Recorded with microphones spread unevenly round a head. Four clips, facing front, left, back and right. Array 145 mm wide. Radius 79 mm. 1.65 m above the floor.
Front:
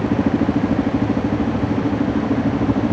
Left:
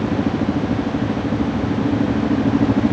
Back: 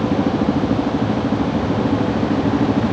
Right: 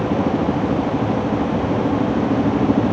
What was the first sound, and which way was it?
Only background noise.